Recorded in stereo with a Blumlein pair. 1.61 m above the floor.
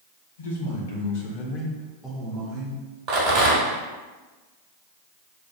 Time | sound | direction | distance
0.4 | a man speaking | 65° left | 1.2 m
3.1 | a rattle | 40° right | 1.1 m